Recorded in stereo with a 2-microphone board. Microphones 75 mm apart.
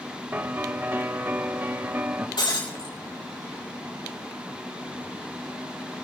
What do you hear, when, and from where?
0.3 s a piano: 25° right (ahead or behind), 0.5 m
2.4 s breaking glass: 85° left, 5.5 m